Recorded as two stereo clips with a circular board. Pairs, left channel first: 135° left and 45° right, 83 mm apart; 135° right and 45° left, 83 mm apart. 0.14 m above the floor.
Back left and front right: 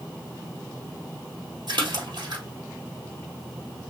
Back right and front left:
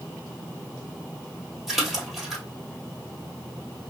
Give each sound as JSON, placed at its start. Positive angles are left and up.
{"t": 1.7, "sound": "a splash", "azimuth_deg": -40, "distance_m": 1.7}